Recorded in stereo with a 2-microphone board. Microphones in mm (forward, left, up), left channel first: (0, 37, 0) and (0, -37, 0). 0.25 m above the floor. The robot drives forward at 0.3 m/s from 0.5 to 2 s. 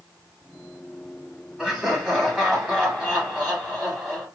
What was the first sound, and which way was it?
Laughter, 5° right (ahead or behind).